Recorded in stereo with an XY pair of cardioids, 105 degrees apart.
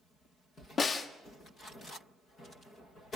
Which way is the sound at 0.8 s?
40° left.